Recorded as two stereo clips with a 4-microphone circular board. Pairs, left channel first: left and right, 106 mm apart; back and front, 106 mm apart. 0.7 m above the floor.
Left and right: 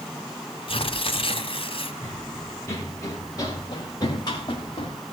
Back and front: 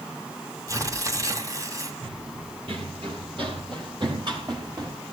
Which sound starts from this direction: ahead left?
Tearing paper, at 0.7 s.